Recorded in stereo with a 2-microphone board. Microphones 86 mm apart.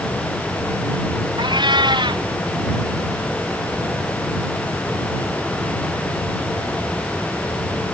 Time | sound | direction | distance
1.4 | a cat meowing | 60° right (ahead or behind) | ?